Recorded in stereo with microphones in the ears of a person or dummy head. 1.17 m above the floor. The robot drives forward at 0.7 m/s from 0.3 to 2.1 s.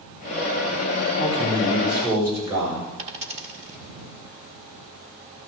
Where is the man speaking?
25° right (ahead or behind), 6.5 m; by 2.9 s 20° right (ahead or behind), 7 m.